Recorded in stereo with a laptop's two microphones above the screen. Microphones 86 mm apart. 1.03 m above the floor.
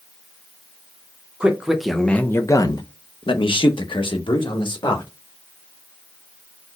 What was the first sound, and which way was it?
A man speaking, 15° right (ahead or behind).